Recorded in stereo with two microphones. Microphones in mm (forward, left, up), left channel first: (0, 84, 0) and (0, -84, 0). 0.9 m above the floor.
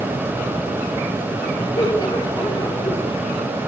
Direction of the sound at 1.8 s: 25° left (ahead or behind).